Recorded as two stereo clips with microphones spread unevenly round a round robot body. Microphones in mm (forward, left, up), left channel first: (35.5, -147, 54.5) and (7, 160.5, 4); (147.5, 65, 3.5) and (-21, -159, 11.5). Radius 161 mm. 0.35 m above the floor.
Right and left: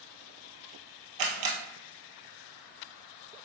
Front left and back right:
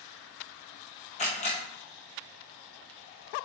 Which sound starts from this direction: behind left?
A camera shutter, at 1.2 s.